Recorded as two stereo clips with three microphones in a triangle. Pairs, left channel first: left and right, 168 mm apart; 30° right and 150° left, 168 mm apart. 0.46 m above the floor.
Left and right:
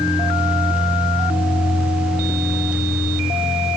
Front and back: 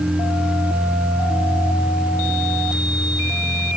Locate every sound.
Only background noise.